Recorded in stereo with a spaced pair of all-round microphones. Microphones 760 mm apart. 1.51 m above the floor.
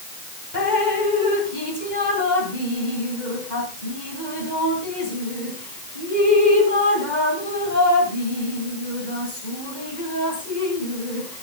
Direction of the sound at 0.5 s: 70° left (ahead or behind).